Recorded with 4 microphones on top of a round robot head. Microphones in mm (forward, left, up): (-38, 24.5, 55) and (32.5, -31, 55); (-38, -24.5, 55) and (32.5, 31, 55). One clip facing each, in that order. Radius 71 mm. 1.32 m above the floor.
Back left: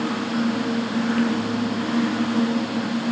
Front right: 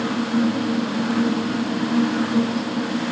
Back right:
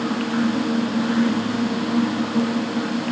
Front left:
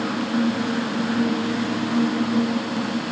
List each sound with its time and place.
Only background noise.